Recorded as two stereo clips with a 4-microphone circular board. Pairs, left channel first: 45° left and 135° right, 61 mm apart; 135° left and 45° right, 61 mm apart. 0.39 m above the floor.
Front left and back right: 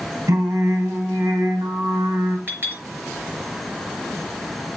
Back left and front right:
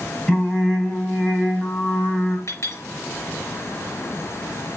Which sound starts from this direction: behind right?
Singing, at 0.3 s.